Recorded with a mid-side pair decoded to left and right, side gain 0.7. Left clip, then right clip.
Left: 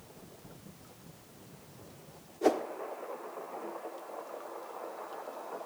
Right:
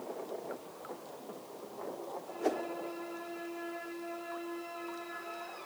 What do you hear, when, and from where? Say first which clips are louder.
2.4 s a whoosh: left 5 dB; 30° left, 1.2 m